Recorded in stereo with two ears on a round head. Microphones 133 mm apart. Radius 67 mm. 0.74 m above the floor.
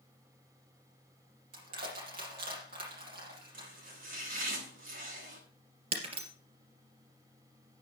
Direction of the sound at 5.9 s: 45° right (ahead or behind).